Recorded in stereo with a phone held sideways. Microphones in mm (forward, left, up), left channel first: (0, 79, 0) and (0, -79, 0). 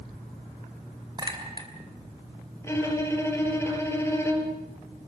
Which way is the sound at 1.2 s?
30° right (ahead or behind).